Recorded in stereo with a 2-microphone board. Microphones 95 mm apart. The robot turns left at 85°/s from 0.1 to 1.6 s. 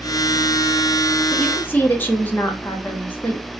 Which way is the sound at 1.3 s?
Centre (ahead or behind).